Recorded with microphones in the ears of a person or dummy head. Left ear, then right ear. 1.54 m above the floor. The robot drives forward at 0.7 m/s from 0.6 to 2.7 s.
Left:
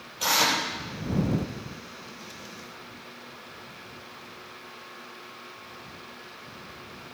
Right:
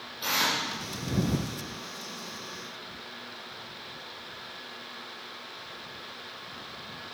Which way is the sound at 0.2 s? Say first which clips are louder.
Left 4 dB; 70° left (ahead or behind).